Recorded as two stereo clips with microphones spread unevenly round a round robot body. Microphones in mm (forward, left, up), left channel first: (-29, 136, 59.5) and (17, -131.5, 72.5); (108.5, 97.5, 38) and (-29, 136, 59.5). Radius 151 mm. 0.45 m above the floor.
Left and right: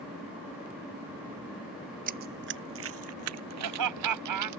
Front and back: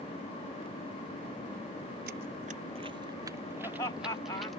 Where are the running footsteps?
140° right; by 4.6 s 105° right.